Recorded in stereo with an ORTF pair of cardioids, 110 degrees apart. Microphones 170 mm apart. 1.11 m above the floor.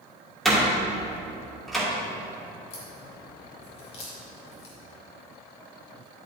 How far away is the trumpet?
No trumpet in this recording.